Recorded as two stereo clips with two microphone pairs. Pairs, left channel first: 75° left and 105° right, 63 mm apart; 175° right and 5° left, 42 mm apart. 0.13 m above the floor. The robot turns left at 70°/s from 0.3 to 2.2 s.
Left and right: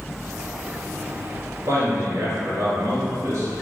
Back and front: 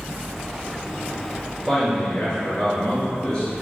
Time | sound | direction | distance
1.7 | a man speaking | 80° right | 1.9 m